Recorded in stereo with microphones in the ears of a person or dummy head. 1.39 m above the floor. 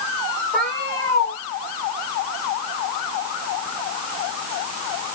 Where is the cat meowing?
5° left (ahead or behind), 2 m.